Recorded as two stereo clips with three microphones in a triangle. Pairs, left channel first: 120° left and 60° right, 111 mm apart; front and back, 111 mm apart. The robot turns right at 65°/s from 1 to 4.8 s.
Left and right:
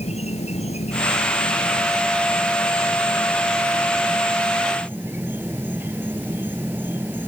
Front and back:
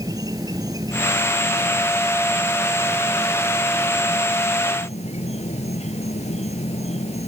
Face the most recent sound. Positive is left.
turn(degrees=10)